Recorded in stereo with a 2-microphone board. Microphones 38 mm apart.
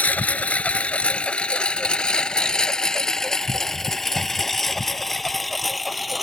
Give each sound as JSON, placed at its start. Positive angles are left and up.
{"t": 0.0, "sound": "a lawn mower", "side_deg": 45}